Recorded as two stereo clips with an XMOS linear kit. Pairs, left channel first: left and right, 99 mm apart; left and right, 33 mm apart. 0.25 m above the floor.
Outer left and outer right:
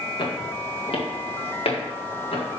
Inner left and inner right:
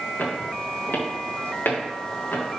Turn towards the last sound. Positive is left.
turn(degrees=75)  # may be behind; listen again after turning